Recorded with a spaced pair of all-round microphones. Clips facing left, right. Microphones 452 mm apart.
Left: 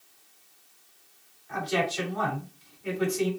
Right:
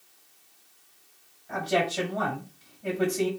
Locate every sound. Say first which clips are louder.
1.5 s a man speaking: right 2 dB; 70° right (ahead or behind), 2.5 m